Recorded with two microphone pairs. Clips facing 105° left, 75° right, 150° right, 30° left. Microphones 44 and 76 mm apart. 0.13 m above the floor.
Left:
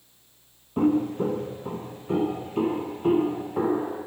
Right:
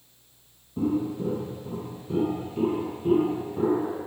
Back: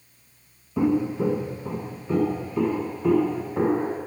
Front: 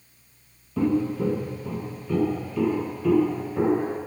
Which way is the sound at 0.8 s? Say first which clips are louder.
Left 4 dB, back 1 dB; 135° left.